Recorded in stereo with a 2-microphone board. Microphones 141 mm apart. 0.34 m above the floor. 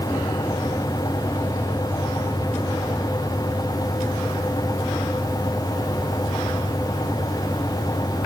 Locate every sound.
Only background noise.